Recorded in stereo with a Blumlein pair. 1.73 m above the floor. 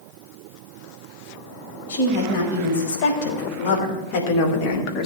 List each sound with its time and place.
1.9 s a woman speaking: 50° left, 5.5 m; by 5.1 s 40° left, 2.5 m